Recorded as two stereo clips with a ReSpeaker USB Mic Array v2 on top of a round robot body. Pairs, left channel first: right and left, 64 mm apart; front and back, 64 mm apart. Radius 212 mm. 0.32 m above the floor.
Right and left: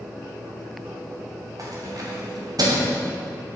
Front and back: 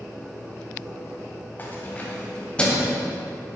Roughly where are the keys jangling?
Ahead left.